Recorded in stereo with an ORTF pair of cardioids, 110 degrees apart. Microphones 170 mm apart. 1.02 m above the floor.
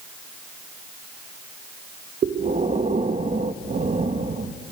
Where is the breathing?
45° right, 0.8 m.